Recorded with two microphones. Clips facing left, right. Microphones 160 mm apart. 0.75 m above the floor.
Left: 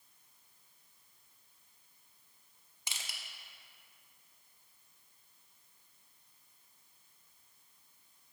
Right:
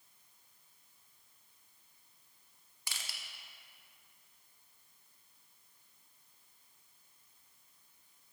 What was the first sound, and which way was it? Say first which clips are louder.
Crushing: left 1 dB; 20° left (ahead or behind).